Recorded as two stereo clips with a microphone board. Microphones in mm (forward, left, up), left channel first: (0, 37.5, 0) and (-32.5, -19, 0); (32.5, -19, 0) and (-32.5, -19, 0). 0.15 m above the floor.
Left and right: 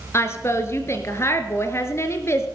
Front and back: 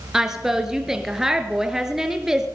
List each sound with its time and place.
0.1 s a woman speaking: 100° left, 2 m